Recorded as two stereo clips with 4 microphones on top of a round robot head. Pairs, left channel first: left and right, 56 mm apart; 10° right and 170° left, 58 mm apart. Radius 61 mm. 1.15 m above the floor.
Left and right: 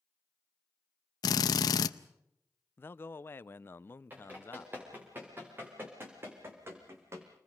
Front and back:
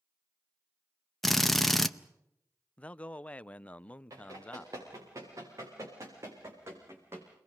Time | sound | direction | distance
1.2 | a drill | 80° left | 0.6 m
2.8 | a man speaking | 55° left | 0.5 m
4.1 | running footsteps | 145° right | 8 m